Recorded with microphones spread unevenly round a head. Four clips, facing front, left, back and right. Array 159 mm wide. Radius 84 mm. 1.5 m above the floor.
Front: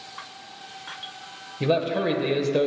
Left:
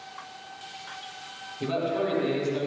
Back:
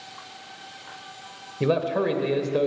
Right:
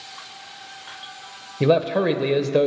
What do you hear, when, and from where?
1.6 s a man speaking: 95° right, 1.4 m; by 2.7 s 70° right, 1.4 m